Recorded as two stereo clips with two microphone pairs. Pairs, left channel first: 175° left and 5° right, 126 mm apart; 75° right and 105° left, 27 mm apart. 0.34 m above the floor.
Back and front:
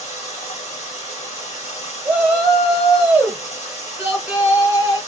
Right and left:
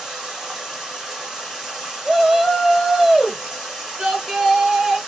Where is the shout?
55° left, 1.2 m.